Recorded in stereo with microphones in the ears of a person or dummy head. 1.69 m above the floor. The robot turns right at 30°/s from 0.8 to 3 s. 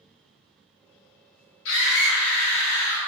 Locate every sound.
1.6 s a scream: 65° left, 1.3 m; by 3.1 s 105° left, 1.3 m